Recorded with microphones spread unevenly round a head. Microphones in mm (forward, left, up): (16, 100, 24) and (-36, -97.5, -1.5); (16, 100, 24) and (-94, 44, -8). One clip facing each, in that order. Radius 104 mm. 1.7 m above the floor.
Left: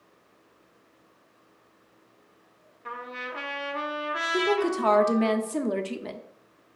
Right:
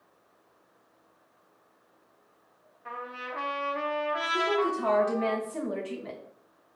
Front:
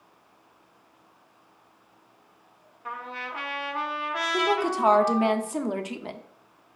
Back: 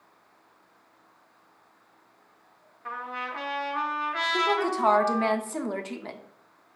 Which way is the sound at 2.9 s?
90° left.